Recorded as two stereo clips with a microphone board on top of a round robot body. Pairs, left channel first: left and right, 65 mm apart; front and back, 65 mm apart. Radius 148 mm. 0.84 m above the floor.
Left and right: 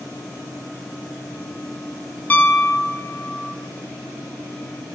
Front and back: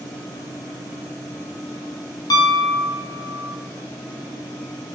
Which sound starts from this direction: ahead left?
A piano, at 2.3 s.